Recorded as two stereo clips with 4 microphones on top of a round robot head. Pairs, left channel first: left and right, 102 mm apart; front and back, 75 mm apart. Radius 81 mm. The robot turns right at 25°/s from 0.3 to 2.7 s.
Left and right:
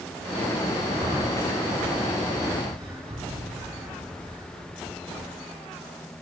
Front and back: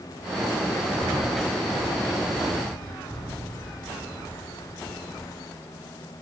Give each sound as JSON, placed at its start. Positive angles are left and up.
{"t": 0.9, "sound": "breathing", "azimuth_deg": -110, "distance_m": 5.5}